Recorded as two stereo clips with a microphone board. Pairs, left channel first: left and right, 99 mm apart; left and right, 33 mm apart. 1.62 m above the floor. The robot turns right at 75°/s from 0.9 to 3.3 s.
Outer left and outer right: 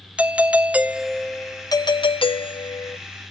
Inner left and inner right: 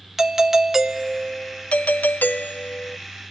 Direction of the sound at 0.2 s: 15° right.